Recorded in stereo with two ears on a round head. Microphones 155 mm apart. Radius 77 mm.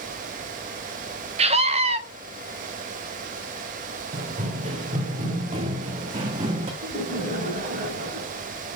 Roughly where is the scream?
Right.